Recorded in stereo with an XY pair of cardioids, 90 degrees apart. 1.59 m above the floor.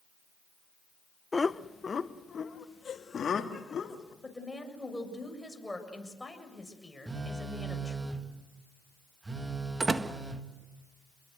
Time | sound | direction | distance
1.3 | laughter | 25° left | 1.0 m
4.2 | a woman speaking | 10° left | 7 m
7.1 | a phone buzzing | 25° right | 2.5 m
9.8 | a door slam | 30° right | 1.7 m